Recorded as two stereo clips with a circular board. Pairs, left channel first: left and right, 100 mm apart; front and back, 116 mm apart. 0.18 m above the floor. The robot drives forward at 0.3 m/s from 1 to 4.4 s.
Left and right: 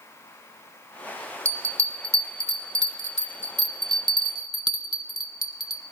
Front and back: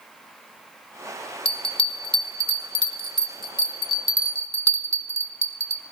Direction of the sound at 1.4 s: 30° right.